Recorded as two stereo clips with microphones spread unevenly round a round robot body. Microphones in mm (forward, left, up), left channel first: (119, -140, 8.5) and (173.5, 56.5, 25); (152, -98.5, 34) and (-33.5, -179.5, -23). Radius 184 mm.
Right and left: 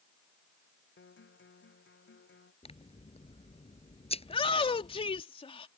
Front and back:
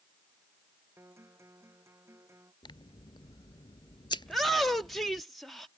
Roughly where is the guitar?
Right.